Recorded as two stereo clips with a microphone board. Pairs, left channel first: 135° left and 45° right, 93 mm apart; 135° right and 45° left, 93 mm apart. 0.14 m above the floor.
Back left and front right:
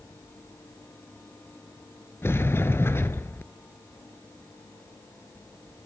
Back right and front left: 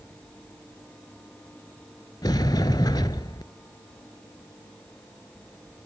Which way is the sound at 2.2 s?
165° right.